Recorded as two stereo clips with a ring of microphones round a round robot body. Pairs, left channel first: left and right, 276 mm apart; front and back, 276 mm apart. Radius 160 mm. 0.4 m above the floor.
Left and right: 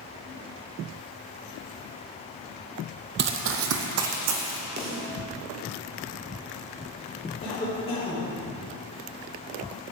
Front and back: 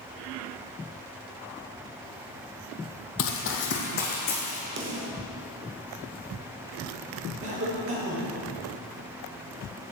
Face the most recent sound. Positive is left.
turn(degrees=155)